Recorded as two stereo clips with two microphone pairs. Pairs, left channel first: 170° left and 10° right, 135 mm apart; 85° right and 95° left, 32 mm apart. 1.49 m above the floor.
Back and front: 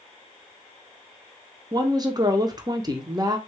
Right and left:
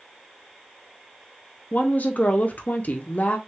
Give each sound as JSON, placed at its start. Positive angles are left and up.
{"t": 1.7, "sound": "a woman speaking", "azimuth_deg": -65, "distance_m": 0.6}